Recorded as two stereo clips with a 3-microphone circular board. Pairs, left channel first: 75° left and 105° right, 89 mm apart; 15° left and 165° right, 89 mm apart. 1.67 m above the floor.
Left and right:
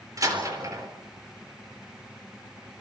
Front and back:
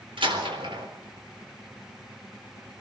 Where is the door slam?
150° right, 4 m.